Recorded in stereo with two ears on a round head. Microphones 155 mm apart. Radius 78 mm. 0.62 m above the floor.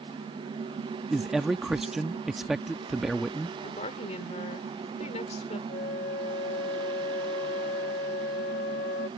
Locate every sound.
1.1 s a man speaking: 5° right (ahead or behind)
3.6 s a woman speaking: 40° left (ahead or behind)
5.7 s a flute: 50° left (ahead or behind)